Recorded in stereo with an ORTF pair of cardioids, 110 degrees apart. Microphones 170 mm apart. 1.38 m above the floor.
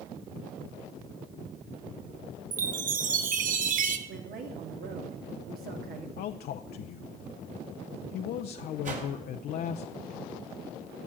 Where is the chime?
55° right, 1.2 m.